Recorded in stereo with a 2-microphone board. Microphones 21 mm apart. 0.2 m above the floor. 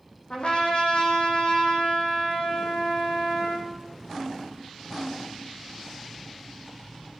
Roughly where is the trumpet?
Left.